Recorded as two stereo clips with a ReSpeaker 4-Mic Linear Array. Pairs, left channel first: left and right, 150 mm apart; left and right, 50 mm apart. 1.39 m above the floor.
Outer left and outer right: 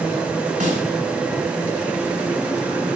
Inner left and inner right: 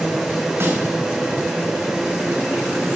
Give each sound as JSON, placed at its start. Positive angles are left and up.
{"t": 0.6, "sound": "a snare drum", "side_deg": -70, "distance_m": 5.5}